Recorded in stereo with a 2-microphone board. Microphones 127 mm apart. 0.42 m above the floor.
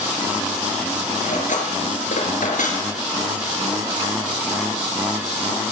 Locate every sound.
1.2 s cutlery clinking: 75° left (ahead or behind), 4 m